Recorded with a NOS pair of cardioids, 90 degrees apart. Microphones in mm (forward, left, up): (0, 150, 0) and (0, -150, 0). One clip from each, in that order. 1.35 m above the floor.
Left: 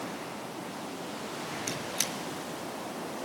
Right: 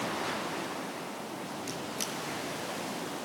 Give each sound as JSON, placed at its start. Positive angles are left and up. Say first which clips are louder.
{"t": 1.7, "sound": "a squeak", "louder": "left 4 dB", "azimuth_deg": 60, "distance_m": 5.5}